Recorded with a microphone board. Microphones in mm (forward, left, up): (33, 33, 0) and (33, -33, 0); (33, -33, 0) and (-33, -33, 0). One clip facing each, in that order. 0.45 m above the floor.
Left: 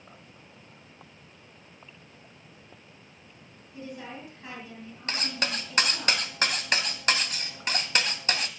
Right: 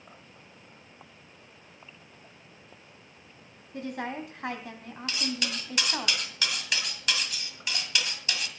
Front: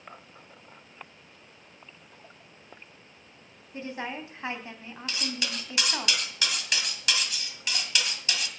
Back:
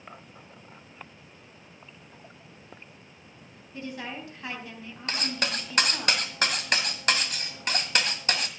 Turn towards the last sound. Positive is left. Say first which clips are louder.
# left 1 dB, back 3 dB
turn(degrees=135)